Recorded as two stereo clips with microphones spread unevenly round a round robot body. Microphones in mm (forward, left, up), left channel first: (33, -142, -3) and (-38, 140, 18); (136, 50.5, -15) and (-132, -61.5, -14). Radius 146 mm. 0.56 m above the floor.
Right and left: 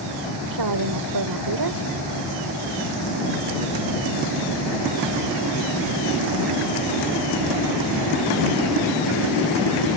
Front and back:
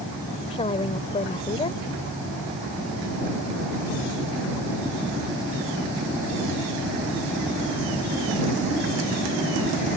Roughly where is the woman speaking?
Left.